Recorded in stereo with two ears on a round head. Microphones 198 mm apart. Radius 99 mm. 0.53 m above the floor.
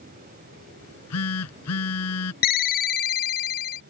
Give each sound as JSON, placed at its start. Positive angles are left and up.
{"t": 0.8, "sound": "a phone buzzing", "side_deg": 80}
{"t": 2.4, "sound": "a ringtone", "side_deg": 40}